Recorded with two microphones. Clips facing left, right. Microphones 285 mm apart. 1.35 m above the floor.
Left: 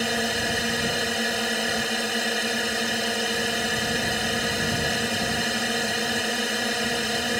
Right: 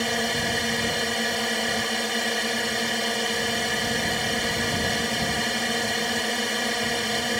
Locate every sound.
0.0 s a drone: 5° left (ahead or behind)